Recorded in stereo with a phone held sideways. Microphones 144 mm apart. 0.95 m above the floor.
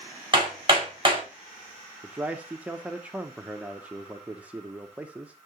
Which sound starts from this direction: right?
Hammering, at 0.3 s.